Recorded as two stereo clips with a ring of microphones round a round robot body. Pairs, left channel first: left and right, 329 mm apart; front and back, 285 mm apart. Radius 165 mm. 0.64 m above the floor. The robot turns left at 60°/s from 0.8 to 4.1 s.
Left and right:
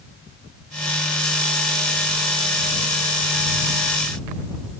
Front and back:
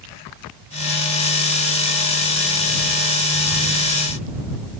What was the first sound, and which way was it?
Only background noise.